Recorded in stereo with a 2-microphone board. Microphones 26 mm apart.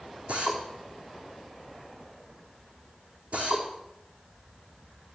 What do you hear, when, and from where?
0.3 s a drill: 65° right (ahead or behind), 4 m